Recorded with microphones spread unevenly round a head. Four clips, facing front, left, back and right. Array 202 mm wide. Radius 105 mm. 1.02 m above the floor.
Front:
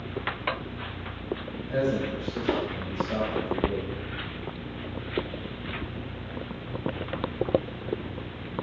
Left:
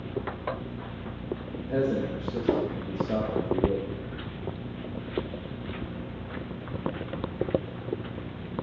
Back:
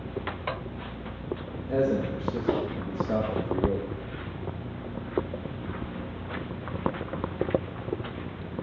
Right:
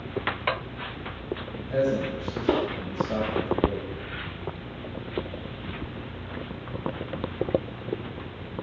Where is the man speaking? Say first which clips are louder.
Right 2 dB, back 2 dB; 145° left, 1.5 m.